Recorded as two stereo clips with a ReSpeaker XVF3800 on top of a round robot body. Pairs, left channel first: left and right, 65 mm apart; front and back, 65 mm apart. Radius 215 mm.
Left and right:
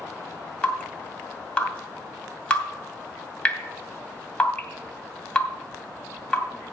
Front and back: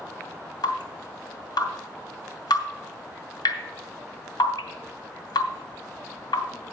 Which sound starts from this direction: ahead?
Dripping, at 0.6 s.